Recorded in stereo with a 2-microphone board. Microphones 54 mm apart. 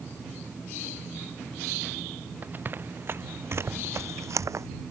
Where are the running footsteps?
35° right (ahead or behind); by 4.7 s 75° right (ahead or behind).